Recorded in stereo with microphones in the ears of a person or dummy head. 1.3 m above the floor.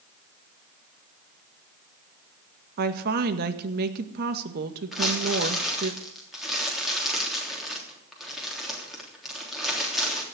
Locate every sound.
2.8 s a woman speaking: 50° right (ahead or behind), 1.7 m
4.9 s crumpling: centre (ahead or behind), 3.5 m